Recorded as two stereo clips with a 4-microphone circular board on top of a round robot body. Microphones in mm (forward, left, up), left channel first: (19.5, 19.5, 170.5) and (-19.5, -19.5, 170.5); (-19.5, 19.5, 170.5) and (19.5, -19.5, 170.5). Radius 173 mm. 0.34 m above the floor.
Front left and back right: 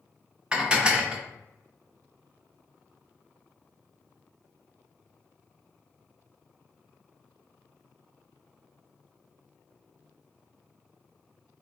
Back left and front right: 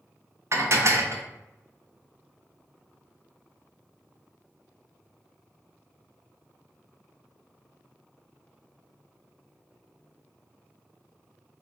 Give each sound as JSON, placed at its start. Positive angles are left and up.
{"t": 0.5, "sound": "dishes clattering", "azimuth_deg": -65, "distance_m": 0.9}